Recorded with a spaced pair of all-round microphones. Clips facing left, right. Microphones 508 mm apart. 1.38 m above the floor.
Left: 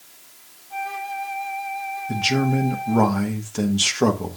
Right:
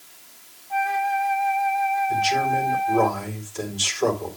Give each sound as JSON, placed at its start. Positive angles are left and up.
{"t": 0.7, "sound": "a flute", "side_deg": -70, "distance_m": 1.2}
{"t": 2.1, "sound": "a man speaking", "side_deg": 80, "distance_m": 1.5}